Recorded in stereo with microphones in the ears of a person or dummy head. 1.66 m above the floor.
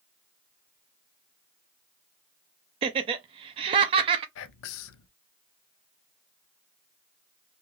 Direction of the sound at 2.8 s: 30° right (ahead or behind).